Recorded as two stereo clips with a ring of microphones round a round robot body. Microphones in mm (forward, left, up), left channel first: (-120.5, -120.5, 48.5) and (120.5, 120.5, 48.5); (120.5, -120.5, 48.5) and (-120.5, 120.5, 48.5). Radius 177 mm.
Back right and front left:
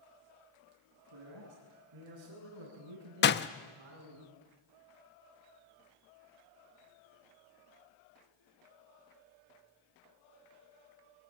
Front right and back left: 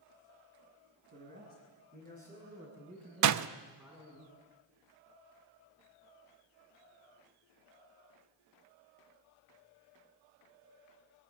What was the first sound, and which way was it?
A man speaking, 75° left.